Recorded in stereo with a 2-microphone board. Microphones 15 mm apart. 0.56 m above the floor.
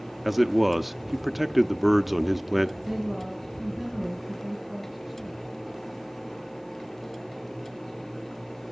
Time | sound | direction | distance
0.2 | a man speaking | 15° right (ahead or behind) | 0.6 m
2.8 | a woman speaking | 5° right (ahead or behind) | 6.5 m